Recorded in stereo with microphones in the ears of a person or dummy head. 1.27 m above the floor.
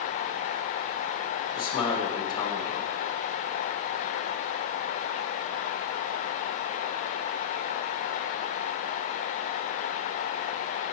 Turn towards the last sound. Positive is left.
turn(degrees=20)  # may be behind; listen again after turning